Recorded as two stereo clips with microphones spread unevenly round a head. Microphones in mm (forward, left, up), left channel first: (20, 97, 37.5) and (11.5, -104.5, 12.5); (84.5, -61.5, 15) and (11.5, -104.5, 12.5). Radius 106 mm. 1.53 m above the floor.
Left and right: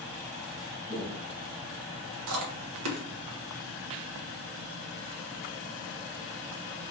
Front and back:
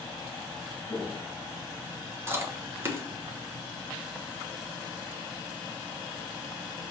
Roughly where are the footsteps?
Ahead.